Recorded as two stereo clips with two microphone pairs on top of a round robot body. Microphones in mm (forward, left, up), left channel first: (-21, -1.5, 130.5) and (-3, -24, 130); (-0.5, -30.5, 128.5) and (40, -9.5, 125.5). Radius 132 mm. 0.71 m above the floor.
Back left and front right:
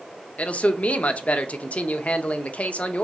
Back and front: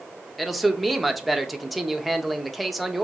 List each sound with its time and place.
0.4 s a man speaking: 115° left, 0.6 m